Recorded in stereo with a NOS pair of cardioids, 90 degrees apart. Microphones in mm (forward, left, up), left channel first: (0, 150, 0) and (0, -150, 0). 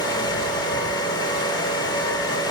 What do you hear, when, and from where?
0.0 s a fan: 15° left, 3 m